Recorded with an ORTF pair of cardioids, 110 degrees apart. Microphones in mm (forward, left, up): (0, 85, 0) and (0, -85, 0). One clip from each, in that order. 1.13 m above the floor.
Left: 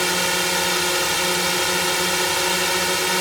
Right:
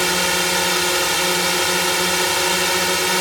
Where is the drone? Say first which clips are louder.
Right 2 dB; 15° right.